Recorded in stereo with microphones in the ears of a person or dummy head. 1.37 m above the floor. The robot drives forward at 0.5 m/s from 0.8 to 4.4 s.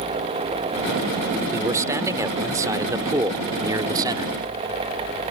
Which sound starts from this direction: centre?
A man speaking, at 1.5 s.